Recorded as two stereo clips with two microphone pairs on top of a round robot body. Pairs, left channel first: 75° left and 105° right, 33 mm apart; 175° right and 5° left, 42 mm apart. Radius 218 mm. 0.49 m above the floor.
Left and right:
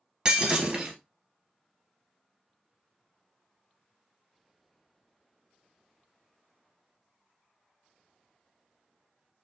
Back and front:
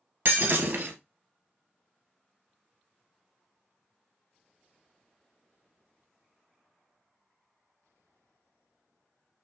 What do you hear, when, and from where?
0.2 s breaking glass: 35° right, 1.1 m